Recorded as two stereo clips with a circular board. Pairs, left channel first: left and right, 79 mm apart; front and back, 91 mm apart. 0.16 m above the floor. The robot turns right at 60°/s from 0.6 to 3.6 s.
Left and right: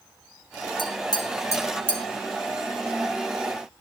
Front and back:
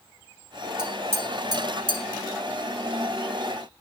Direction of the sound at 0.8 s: 95° left.